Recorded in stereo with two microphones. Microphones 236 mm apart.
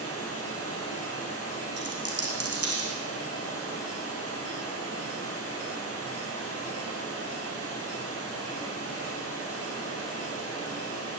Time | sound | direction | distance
0.0 | running water | 75° left (ahead or behind) | 8 m
1.8 | a dropped coin | 85° right | 5.5 m